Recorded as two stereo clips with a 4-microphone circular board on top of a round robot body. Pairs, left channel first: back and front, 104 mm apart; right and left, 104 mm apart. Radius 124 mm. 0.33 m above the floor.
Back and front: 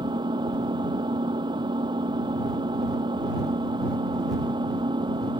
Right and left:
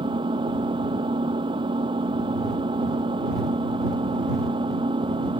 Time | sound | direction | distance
0.0 | an engine running | 50° left | ?